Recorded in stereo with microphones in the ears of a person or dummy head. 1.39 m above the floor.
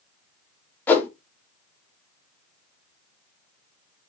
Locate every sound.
0.9 s a whoosh: 15° left (ahead or behind), 0.9 m